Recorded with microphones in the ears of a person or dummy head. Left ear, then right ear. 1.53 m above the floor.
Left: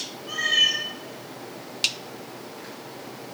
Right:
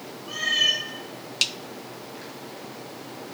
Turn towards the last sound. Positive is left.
turn(degrees=50)  # may be behind; listen again after turning